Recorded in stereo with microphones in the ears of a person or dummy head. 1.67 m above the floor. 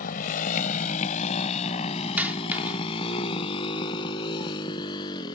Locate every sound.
0.0 s a motorcycle: 50° left (ahead or behind); by 5.4 s 20° left (ahead or behind)
2.2 s a dropped coin: 5° right (ahead or behind)